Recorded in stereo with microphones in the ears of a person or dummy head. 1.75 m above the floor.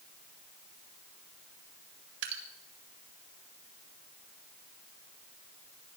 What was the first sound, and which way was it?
Dripping, 75° right (ahead or behind).